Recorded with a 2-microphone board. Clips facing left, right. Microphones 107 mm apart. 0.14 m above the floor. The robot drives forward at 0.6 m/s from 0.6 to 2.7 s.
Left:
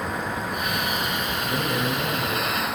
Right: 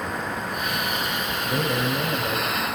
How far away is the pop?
I don't hear a pop.